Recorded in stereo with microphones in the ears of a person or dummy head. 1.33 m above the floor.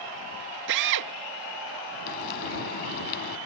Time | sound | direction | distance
0.7 | a drill | 55° right (ahead or behind) | ?
2.1 | frying | 60° left (ahead or behind) | ?